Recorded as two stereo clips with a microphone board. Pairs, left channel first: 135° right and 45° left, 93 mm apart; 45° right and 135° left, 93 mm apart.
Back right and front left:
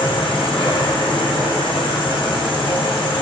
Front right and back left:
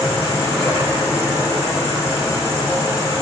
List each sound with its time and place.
0.0 s an insect: 135° right, 2 m